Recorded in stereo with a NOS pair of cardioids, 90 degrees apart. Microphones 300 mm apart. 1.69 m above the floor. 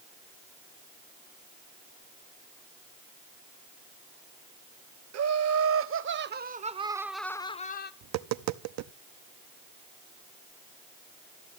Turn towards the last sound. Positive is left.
turn(degrees=-65)